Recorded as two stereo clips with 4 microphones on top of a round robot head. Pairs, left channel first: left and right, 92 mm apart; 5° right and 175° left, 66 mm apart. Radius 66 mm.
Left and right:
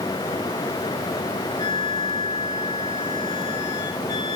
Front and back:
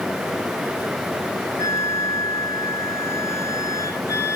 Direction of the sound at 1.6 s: 30° left.